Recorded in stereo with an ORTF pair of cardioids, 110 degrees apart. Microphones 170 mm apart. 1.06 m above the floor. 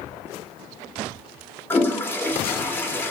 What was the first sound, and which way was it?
A toilet flushing, 15° left.